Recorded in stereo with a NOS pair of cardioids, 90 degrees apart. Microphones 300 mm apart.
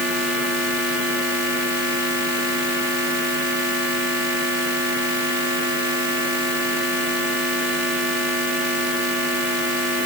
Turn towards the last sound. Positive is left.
No sound to turn to.